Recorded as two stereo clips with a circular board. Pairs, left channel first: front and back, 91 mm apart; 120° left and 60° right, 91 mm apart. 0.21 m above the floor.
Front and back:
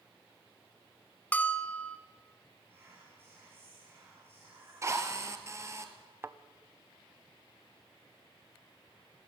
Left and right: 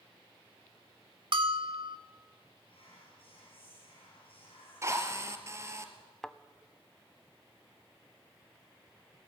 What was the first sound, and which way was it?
A bell, 70° right.